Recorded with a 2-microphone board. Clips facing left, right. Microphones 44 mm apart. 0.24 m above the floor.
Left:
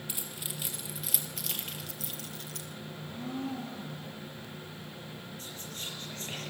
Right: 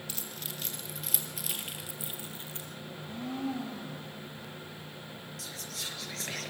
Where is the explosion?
I don't hear an explosion.